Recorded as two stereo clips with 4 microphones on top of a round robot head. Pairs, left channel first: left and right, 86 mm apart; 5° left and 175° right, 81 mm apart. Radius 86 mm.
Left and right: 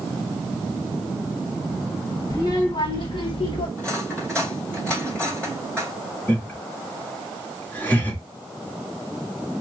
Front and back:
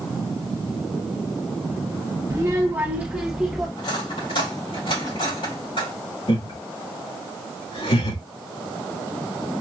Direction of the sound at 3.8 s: 15° left.